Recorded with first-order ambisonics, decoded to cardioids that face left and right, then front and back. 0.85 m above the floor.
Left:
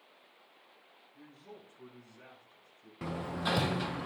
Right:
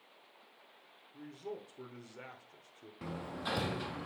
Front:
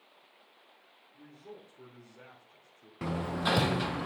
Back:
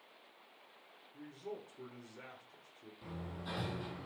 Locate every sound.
1.1 s a man speaking: 115° right, 2.5 m; by 2.9 s 95° right, 3 m
3.0 s hammering: 20° left, 0.5 m